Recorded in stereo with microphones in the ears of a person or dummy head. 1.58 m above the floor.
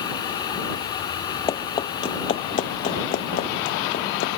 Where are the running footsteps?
25° left (ahead or behind); by 4.3 s 55° left (ahead or behind).